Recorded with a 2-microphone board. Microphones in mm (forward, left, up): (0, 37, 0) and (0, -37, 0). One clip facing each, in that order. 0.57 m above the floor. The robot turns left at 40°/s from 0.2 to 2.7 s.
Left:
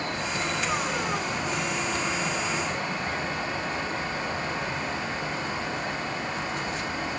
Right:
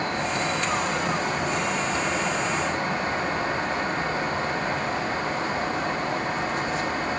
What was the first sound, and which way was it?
Only background noise.